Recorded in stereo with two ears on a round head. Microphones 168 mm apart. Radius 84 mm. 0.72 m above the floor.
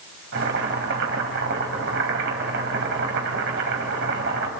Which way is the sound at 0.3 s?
65° right (ahead or behind).